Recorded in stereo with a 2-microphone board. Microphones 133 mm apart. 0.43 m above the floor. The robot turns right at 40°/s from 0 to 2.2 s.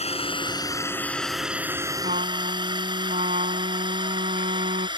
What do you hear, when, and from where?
0.0 s a drone: 50° left (ahead or behind); by 5.0 s 35° right (ahead or behind)
2.0 s a trumpet: 70° right (ahead or behind); by 4.9 s 75° right (ahead or behind)